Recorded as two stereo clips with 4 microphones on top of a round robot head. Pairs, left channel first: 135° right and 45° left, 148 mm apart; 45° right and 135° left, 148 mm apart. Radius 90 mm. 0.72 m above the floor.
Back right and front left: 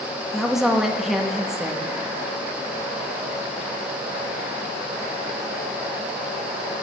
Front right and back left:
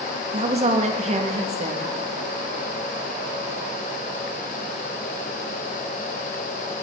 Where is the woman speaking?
135° left, 0.9 m.